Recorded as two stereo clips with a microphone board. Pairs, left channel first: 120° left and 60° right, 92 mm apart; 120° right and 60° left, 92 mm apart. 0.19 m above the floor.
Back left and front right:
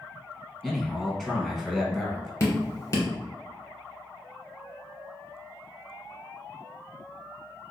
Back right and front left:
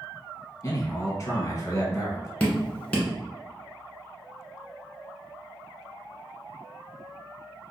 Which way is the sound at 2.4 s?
165° left.